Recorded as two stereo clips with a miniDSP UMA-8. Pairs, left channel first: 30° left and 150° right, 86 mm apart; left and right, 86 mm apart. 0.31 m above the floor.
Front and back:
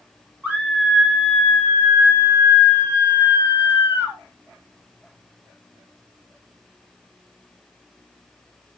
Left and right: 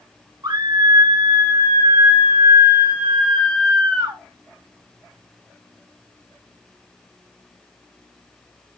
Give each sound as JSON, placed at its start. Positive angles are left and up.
{"t": 0.4, "sound": "a scream", "azimuth_deg": -80, "distance_m": 5.0}